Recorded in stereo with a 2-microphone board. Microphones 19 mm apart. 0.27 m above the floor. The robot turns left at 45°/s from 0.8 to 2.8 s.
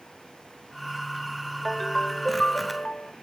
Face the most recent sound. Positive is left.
turn(degrees=120)